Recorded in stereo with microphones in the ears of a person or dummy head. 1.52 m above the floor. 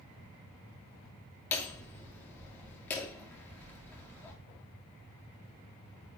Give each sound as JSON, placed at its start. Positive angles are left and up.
{"t": 1.5, "sound": "hammering", "side_deg": 5, "distance_m": 3.0}